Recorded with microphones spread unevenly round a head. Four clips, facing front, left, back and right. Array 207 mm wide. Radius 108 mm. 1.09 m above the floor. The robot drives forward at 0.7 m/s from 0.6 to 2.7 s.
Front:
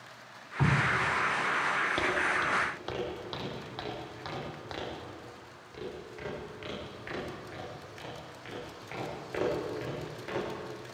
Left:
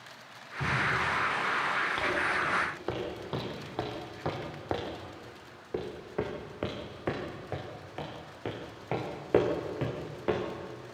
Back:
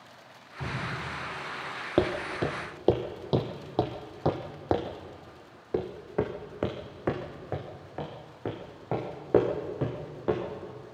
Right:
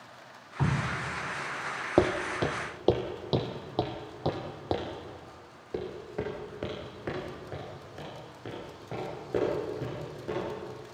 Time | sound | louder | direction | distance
0.6 | dripping | left 1 dB, front 7 dB | 35° right | 2.5 m
2.0 | footsteps | right 4 dB, back 3 dB | 120° right | 2 m